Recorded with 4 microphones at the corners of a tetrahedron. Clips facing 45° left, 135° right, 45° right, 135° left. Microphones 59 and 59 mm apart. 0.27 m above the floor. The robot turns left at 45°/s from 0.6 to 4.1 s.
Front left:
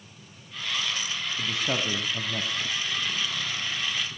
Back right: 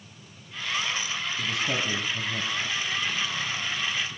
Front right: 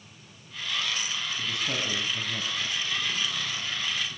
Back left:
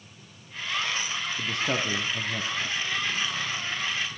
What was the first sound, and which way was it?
A man speaking, 110° left.